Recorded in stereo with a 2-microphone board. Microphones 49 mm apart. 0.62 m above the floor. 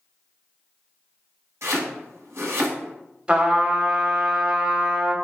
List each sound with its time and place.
1.6 s chopping: 70° right (ahead or behind), 1.0 m
3.3 s a trumpet: 20° right (ahead or behind), 0.6 m